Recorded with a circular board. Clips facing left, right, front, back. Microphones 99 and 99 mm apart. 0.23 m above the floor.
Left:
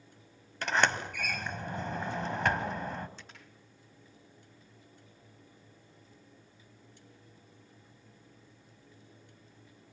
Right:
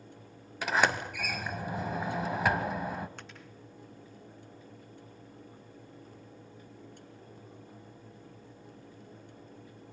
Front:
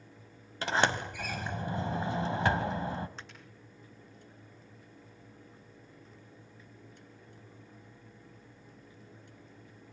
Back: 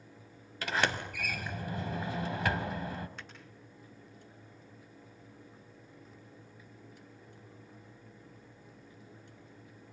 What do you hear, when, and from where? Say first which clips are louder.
0.6 s a sliding door: right 1 dB, front 3 dB; 15° right, 1.3 m
3.2 s a finger snap: right 5 dB, front 1 dB; 60° right, 10 m